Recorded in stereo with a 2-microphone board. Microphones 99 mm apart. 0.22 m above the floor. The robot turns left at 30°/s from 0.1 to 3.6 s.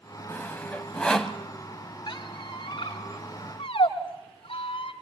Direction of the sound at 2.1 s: 45° left (ahead or behind).